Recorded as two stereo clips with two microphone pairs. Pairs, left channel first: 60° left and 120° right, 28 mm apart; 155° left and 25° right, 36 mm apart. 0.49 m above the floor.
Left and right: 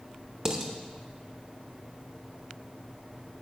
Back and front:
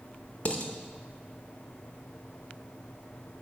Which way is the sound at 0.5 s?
Straight behind.